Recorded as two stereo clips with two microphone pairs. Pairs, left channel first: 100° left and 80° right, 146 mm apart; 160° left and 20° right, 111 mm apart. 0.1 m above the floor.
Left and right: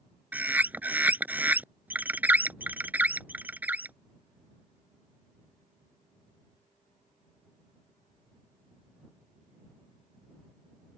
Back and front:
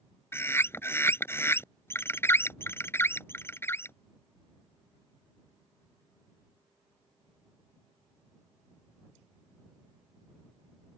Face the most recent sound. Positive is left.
turn(degrees=-145)